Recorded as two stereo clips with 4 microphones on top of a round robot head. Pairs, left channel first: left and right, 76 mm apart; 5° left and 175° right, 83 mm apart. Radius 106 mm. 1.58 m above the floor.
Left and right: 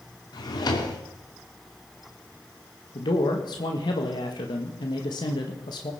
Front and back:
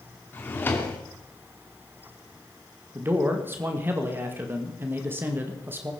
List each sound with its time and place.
0.3 s a drawer: 70° left, 2 m
3.0 s a man speaking: 120° left, 1.9 m